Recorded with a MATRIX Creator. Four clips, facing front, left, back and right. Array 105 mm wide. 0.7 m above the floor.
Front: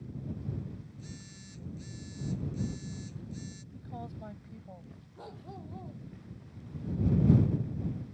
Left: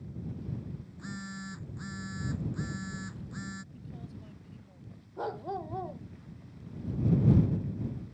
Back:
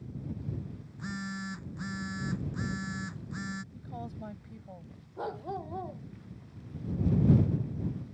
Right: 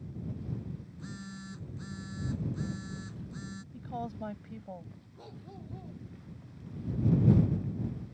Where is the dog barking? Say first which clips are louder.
Left 15 dB, back 10 dB; 125° left.